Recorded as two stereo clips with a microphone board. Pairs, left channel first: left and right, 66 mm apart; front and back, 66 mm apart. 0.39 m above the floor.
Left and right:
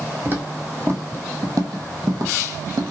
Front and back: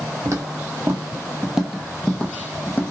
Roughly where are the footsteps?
Behind right.